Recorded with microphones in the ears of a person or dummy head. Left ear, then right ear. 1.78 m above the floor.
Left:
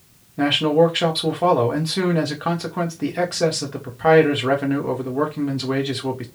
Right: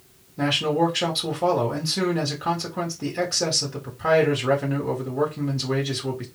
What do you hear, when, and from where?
0.4 s a man speaking: 20° left (ahead or behind), 1.6 m